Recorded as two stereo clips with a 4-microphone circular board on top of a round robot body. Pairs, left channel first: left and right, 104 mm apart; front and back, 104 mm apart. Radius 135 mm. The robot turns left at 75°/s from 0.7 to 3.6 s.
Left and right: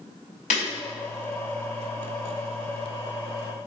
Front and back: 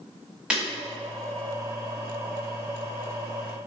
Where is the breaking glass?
100° left, 0.5 m.